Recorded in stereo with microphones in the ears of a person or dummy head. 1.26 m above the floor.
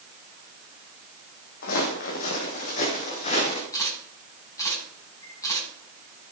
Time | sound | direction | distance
1.6 | footsteps | 55° left (ahead or behind) | 3 m
3.7 | a camera shutter | 20° left (ahead or behind) | 10 m